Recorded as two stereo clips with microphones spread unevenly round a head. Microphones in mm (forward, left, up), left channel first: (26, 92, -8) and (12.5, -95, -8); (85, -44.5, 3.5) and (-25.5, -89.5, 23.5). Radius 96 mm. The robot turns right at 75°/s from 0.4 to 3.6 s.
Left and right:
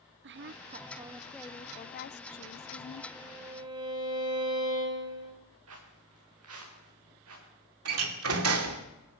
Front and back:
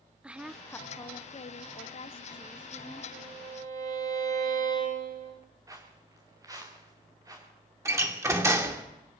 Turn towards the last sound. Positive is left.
turn(degrees=-90)